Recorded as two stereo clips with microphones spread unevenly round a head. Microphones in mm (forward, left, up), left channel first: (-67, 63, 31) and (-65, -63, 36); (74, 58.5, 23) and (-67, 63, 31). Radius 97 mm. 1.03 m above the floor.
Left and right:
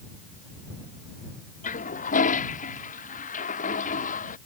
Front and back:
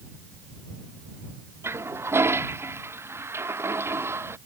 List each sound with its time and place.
1.6 s a toilet flushing: 105° left